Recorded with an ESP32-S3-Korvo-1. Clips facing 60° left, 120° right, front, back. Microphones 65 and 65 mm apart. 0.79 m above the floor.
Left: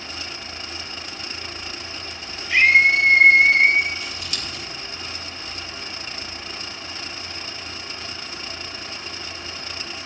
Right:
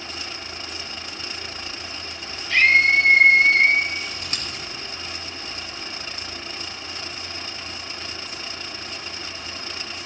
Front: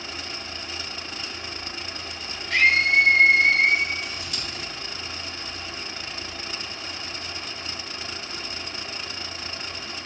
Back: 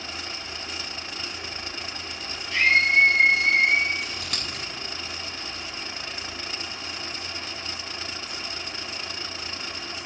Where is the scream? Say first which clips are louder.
Left 1 dB, front 1 dB; 10° right, 5 m; by 3.9 s 20° right, 5.5 m.